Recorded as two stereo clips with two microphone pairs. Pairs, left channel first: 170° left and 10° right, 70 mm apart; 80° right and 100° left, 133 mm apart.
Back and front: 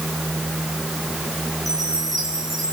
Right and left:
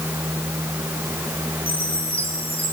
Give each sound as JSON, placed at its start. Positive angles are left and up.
{"t": 1.7, "sound": "a chime", "azimuth_deg": -40, "distance_m": 5.0}